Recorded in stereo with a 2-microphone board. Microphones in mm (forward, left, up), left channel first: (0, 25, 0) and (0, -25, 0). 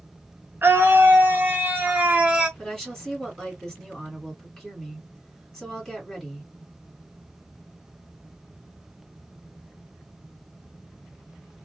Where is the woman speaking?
5° left (ahead or behind), 2 m.